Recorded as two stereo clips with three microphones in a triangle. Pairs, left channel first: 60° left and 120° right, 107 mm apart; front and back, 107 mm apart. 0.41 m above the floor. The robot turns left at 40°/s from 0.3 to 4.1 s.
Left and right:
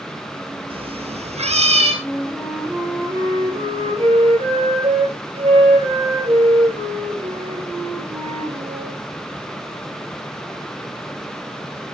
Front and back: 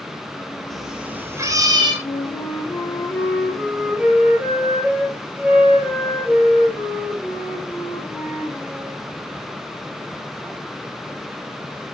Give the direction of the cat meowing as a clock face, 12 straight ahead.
3 o'clock.